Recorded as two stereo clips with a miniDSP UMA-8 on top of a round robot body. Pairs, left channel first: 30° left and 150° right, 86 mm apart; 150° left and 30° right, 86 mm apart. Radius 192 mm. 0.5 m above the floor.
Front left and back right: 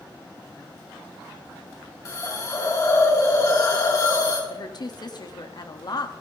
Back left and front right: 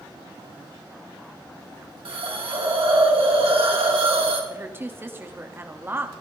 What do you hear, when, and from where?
2.0 s a hiss: 20° right, 3 m
4.5 s a woman speaking: 30° left, 1.5 m